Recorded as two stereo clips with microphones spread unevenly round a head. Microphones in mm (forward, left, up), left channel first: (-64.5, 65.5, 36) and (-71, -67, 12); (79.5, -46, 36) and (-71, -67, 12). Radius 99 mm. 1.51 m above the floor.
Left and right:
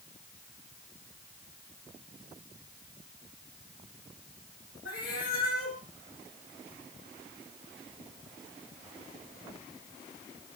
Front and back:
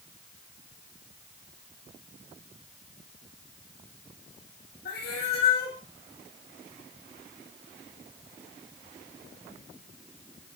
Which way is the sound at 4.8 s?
50° left.